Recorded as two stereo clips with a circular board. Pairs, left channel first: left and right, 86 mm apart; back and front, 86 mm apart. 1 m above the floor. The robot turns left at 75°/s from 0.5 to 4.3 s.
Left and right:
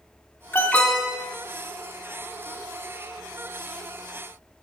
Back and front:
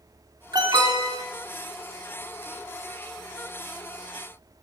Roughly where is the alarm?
Ahead left.